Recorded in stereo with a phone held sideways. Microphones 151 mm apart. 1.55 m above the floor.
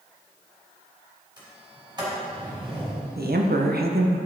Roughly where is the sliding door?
Right.